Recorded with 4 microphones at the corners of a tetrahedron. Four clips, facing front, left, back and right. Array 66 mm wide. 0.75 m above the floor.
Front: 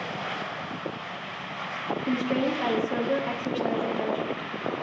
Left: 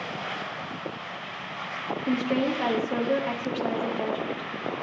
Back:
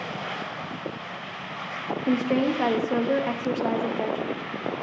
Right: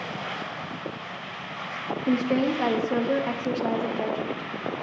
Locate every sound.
2.1 s a woman speaking: 145° right, 1.0 m